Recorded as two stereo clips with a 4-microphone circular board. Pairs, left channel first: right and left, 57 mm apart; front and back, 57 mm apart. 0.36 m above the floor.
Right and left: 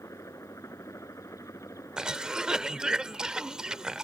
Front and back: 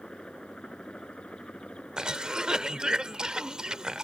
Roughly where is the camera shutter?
I don't hear a camera shutter.